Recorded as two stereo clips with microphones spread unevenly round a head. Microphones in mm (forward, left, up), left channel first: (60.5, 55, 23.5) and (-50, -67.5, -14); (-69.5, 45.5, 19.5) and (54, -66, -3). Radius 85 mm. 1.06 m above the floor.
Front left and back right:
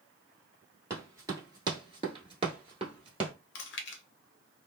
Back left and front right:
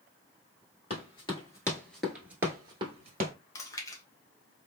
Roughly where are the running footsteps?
Behind left.